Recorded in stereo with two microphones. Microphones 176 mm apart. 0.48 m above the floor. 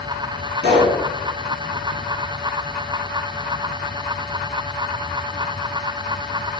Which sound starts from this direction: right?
A pop, at 0.6 s.